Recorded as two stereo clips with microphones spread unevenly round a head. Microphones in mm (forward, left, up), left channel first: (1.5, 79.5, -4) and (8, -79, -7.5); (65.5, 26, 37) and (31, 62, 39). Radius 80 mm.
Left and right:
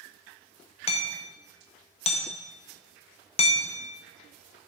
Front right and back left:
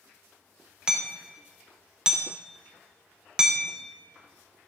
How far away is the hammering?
About 1.0 m.